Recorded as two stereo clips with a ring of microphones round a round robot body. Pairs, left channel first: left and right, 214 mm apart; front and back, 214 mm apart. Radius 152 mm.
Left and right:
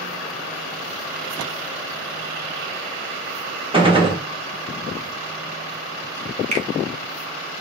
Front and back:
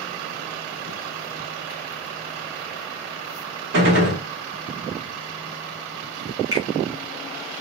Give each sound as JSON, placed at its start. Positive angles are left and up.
{"t": 3.7, "sound": "a gunshot", "azimuth_deg": -155, "distance_m": 1.3}
{"t": 6.5, "sound": "a finger snap", "azimuth_deg": -115, "distance_m": 0.8}